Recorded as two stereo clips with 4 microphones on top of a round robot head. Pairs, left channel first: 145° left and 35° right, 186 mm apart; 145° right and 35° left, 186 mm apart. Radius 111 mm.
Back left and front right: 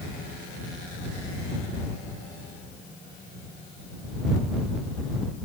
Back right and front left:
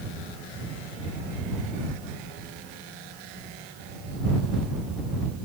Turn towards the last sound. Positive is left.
No sound to turn to.